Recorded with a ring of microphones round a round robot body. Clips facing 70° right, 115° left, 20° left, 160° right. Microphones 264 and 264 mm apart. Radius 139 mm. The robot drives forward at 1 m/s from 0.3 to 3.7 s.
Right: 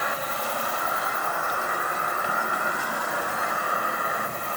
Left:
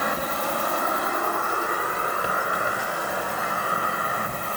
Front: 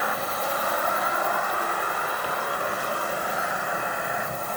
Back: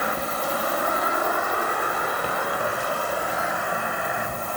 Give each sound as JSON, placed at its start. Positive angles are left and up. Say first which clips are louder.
{"t": 0.0, "sound": "an insect", "louder": "left 4 dB, back 2 dB", "azimuth_deg": 145, "distance_m": 1.7}